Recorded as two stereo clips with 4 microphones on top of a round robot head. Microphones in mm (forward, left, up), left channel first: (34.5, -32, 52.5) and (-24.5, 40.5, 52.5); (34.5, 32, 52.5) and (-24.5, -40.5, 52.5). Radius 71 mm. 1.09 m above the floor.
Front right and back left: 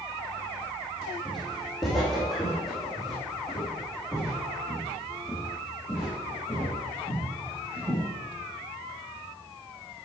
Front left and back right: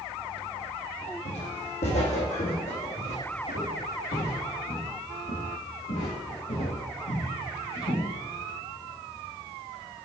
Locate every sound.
1.2 s footsteps: 35° left, 3 m; by 8.0 s 40° left, 8 m